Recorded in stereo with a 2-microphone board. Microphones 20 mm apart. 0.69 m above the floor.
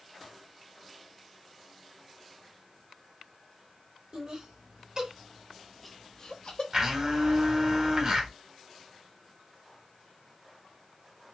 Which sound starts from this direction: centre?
A blender, at 6.7 s.